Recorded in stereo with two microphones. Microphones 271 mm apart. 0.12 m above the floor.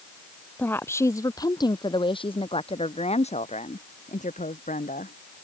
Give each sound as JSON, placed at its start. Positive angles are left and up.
{"t": 0.6, "sound": "a woman speaking", "side_deg": 5}